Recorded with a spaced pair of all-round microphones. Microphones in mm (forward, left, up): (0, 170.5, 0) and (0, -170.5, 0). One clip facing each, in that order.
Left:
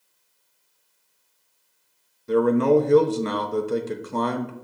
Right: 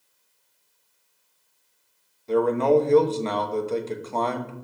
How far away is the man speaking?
About 0.8 m.